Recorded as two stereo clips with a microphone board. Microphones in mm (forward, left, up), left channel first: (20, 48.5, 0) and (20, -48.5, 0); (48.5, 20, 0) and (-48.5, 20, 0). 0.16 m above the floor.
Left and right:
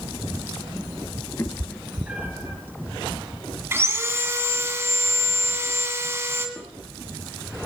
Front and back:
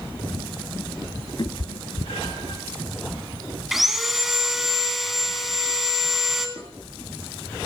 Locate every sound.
1.4 s a cat meowing: 35° left, 1.2 m; by 2.6 s 30° right, 2.0 m
3.7 s sawing: 95° right, 1.6 m
6.6 s dishes clattering: 170° left, 8.5 m